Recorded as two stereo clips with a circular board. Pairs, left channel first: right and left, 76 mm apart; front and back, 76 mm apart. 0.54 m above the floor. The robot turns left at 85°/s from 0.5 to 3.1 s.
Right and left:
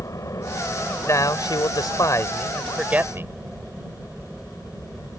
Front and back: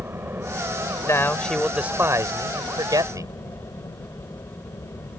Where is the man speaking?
40° right; by 3.3 s 145° left.